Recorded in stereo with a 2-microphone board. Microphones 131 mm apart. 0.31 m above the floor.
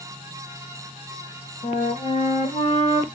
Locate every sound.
1.6 s a flute: 60° left (ahead or behind), 0.9 m